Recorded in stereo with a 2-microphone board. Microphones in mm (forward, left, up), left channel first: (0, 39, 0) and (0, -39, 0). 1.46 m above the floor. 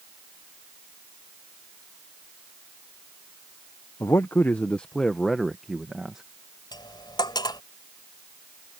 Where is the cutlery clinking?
75° left (ahead or behind).